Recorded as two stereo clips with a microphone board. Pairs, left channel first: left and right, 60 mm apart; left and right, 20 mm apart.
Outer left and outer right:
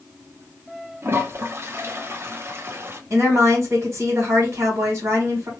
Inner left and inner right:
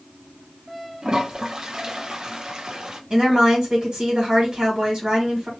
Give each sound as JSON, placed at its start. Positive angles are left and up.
{"t": 1.0, "sound": "a toilet flushing", "side_deg": -40, "distance_m": 0.5}
{"t": 3.1, "sound": "a woman speaking", "side_deg": -40, "distance_m": 1.6}